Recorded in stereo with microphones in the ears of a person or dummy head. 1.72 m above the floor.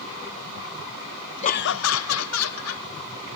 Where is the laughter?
35° left (ahead or behind), 0.6 m; by 2.9 s 80° left, 2 m.